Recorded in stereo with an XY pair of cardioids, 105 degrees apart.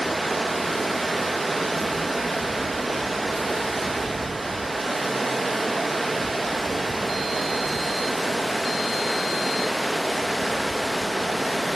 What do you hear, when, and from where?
0.0 s running water: 15° right, 0.9 m